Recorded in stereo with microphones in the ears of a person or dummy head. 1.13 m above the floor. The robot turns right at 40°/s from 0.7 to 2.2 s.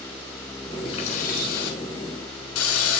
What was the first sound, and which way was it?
A running tap, 35° left.